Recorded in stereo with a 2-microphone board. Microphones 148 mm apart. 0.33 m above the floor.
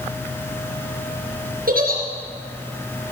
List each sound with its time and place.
1.7 s a giggle: 80° right, 4 m